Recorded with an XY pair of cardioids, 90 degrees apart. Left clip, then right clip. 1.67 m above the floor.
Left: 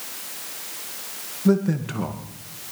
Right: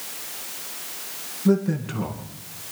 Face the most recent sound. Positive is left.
turn(degrees=25)